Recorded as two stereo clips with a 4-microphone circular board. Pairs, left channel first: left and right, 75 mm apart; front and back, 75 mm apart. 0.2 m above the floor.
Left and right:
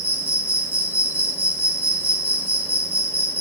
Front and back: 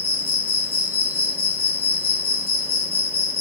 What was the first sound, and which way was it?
An insect, 140° right.